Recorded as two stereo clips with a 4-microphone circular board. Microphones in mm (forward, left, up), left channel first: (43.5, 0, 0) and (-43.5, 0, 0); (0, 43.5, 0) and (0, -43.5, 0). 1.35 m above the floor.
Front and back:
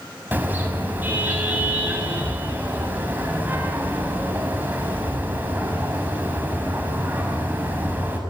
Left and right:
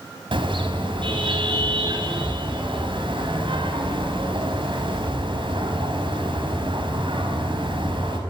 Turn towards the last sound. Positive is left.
turn(degrees=-110)